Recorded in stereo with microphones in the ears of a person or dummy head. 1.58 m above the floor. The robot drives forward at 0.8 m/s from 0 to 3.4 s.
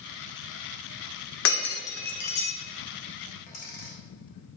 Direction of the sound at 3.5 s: 45° left (ahead or behind).